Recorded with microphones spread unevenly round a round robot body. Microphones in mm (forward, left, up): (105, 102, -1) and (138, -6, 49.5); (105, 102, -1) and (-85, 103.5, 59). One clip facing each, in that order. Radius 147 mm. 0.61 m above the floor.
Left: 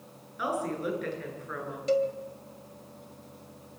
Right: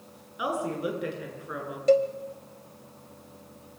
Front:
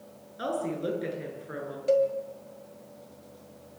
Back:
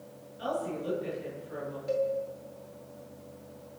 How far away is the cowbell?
About 1.9 m.